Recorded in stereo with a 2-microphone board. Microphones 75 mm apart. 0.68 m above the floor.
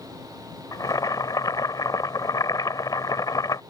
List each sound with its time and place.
0.7 s boiling: 60° left (ahead or behind)